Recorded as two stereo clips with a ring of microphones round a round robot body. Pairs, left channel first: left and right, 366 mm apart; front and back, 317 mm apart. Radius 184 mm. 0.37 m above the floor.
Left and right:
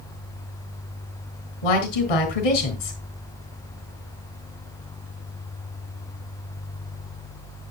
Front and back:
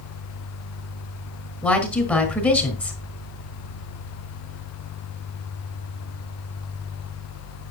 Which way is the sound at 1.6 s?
85° left.